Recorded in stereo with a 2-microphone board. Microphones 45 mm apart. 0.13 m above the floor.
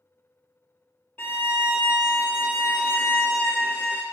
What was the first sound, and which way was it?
A violin, 50° left (ahead or behind).